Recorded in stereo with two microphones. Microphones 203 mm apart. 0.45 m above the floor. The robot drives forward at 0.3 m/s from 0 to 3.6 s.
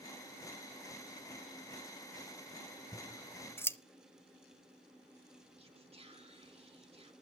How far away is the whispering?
About 1.0 m.